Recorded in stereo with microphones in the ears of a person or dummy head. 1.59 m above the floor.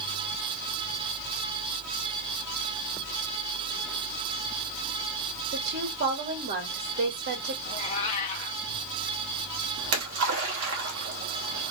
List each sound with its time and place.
5.5 s a woman speaking: 60° right (ahead or behind), 2.5 m
7.7 s a cat meowing: 35° left (ahead or behind), 1.1 m
9.8 s a splash: 85° right, 2 m